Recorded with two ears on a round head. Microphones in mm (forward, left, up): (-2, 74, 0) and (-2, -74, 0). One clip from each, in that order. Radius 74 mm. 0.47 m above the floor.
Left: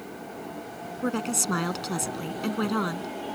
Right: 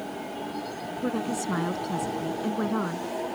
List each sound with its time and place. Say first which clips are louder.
1.0 s a woman speaking: left 2 dB; 70° left (ahead or behind)